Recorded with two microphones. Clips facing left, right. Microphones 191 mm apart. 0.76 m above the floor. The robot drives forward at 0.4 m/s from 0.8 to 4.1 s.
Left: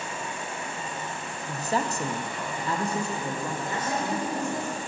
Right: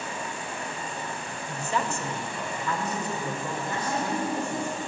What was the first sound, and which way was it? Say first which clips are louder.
An insect: even; 25° left (ahead or behind).